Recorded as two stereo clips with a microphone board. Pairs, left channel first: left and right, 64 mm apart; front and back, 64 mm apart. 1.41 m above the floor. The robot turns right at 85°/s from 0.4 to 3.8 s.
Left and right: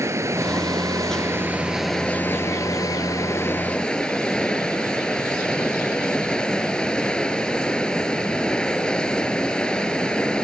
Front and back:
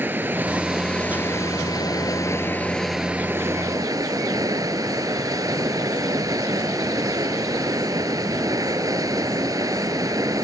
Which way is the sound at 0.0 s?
125° right.